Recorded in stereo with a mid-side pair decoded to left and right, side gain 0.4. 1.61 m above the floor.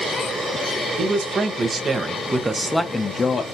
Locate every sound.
1.0 s a man speaking: 60° right, 1.3 m; by 3.4 s 55° left, 0.6 m